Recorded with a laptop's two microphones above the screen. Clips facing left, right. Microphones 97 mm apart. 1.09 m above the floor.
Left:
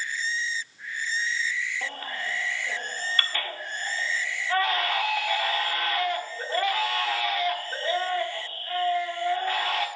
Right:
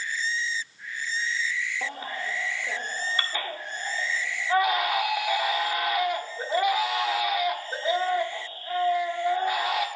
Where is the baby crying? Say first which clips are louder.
Right 1 dB; 15° right (ahead or behind), 1.3 m.